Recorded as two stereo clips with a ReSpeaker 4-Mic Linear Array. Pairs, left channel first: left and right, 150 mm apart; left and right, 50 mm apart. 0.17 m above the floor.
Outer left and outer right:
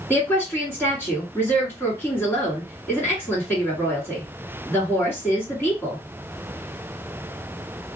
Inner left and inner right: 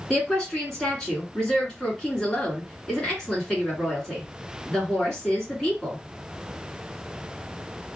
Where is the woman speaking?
15° left (ahead or behind), 1.9 m.